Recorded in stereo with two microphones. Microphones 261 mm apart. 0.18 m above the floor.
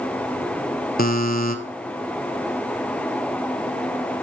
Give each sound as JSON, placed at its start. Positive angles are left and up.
{"t": 1.0, "sound": "a buzzer", "side_deg": 35, "distance_m": 0.7}